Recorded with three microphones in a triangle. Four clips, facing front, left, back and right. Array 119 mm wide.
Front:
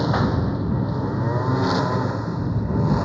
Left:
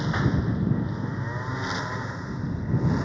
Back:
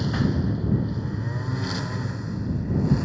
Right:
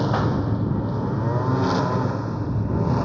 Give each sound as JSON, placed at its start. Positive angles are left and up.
{"t": 0.0, "sound": "a lawn mower", "azimuth_deg": -45}